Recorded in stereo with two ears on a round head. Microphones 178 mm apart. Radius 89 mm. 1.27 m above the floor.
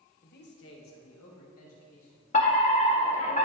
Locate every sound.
0.2 s a man speaking: 45° left (ahead or behind), 1.2 m; by 2.2 s 80° left, 4 m
2.3 s a fire alarm: 35° left (ahead or behind), 1.3 m